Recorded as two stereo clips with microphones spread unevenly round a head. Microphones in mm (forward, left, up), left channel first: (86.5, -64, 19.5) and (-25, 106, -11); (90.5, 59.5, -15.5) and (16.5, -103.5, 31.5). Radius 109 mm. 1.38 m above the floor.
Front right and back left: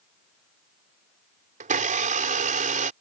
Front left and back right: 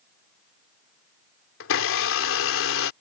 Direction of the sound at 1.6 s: 70° left.